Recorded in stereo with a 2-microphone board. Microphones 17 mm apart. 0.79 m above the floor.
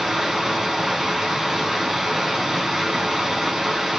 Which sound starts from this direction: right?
Running water, at 0.0 s.